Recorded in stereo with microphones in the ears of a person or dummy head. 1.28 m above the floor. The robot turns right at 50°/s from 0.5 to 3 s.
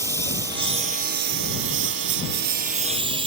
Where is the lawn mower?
155° right; by 3.3 s 30° right.